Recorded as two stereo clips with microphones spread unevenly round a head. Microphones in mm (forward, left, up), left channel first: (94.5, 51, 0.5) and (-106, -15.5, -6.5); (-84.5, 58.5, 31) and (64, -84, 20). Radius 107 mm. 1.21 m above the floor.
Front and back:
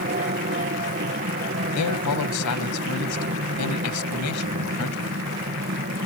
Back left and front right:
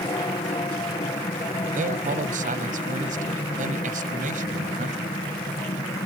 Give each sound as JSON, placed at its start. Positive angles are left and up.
{"t": 0.0, "sound": "an aircraft", "azimuth_deg": -165}
{"t": 1.8, "sound": "a man speaking", "azimuth_deg": 15}